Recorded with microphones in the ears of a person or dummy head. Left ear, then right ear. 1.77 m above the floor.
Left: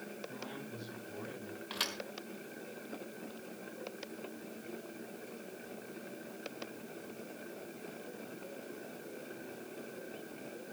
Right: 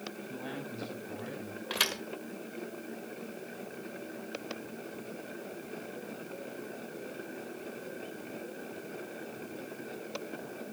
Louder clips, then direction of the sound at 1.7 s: Right 7 dB; 10° right (ahead or behind).